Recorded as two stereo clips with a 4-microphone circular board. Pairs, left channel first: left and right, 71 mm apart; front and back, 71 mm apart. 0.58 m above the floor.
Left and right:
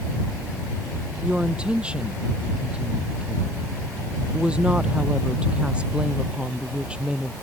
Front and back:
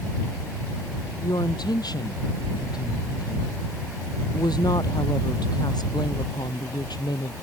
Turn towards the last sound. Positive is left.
turn(degrees=-15)